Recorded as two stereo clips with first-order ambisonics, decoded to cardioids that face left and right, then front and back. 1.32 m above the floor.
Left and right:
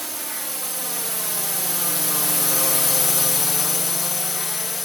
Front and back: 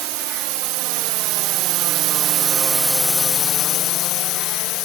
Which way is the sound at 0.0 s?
175° right.